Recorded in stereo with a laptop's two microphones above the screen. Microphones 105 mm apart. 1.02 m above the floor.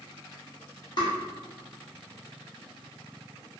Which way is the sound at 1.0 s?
45° left (ahead or behind).